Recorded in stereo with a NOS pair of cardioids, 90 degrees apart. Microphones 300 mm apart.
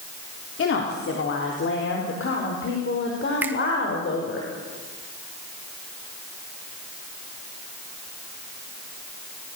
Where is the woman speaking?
45° left, 4 m; by 4.4 s 40° left, 6 m.